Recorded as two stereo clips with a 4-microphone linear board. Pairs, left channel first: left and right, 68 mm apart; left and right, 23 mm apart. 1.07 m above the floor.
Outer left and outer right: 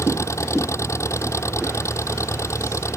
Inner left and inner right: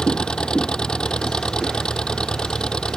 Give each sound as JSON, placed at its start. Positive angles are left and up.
{"t": 0.0, "sound": "an engine running", "side_deg": 45}